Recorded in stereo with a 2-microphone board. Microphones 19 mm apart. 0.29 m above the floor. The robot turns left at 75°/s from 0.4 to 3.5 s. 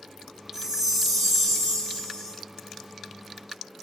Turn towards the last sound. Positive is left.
turn(degrees=-10)